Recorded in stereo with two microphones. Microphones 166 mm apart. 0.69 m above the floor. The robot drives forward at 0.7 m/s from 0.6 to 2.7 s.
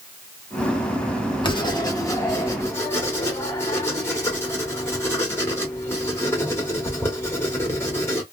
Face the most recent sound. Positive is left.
turn(degrees=15)  # may be behind; listen again after turning